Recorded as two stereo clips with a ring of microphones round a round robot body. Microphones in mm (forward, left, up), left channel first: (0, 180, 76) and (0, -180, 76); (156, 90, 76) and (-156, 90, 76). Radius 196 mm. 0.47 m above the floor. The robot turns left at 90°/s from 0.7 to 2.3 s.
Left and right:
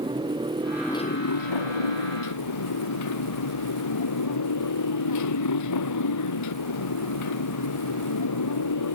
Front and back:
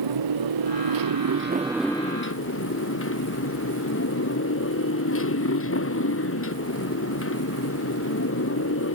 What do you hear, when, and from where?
0.0 s a motorcycle: 170° right; by 9.0 s 45° left